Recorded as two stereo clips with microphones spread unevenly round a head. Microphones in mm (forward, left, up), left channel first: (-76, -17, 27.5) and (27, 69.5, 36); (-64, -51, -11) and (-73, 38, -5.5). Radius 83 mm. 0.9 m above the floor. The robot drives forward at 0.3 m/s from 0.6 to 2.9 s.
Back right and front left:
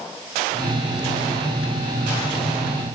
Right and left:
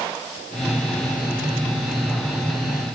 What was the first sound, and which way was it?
Only background noise.